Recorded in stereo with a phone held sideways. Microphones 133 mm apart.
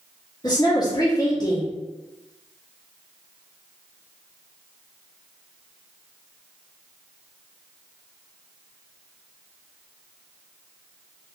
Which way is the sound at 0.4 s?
30° left (ahead or behind).